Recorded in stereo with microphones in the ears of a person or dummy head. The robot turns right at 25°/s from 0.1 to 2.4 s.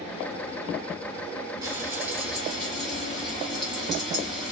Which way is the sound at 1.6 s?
20° right (ahead or behind).